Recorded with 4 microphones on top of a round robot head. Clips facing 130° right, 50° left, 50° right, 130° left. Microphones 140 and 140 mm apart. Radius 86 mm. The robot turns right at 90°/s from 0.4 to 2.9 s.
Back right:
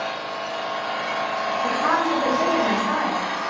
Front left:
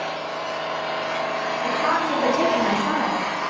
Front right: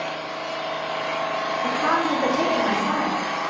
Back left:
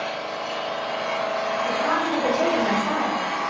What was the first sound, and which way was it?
An engine running, 165° left.